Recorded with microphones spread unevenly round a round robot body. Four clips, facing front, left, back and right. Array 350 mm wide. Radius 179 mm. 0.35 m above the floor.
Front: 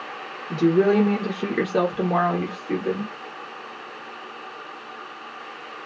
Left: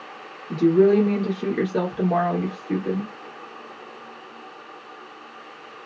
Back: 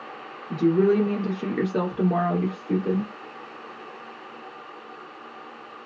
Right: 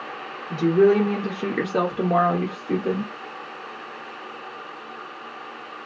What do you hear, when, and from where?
0.5 s a woman speaking: 40° left, 1.5 m; by 3.1 s 110° right, 1.6 m